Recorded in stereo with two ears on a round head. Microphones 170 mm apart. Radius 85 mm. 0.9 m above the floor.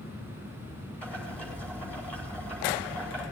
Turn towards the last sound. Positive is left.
turn(degrees=10)  # may be behind; listen again after turning